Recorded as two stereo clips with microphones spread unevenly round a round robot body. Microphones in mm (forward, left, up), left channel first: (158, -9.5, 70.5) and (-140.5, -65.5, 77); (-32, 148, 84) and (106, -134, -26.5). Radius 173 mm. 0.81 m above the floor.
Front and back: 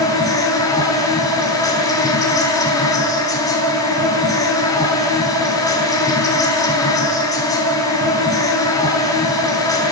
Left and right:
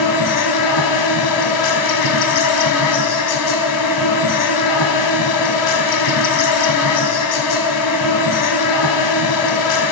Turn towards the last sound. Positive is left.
turn(degrees=90)